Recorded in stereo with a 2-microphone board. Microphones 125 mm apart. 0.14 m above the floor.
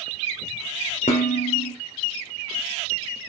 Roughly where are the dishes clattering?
Left.